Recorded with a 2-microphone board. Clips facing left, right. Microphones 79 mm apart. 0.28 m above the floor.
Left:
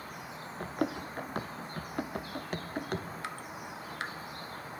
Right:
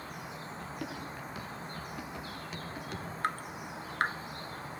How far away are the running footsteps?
About 1.8 m.